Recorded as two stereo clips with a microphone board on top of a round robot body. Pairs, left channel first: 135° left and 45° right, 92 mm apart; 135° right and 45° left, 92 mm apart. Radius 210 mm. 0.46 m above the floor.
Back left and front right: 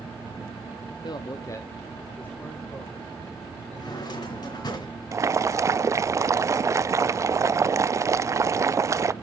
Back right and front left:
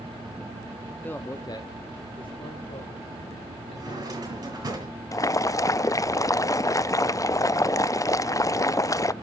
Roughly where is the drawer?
Left.